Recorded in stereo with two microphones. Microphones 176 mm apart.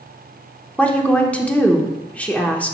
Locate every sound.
0.8 s a woman speaking: 5° left (ahead or behind), 0.7 m